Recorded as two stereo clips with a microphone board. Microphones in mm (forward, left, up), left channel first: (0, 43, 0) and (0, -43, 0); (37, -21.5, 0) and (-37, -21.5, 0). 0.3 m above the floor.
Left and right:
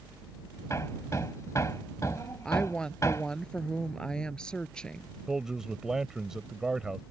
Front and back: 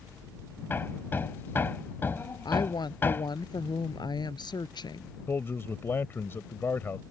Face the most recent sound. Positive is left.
turn(degrees=-10)